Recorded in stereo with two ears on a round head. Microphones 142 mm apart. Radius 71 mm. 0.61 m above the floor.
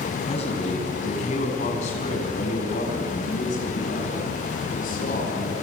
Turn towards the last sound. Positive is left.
turn(degrees=60)  # may be behind; listen again after turning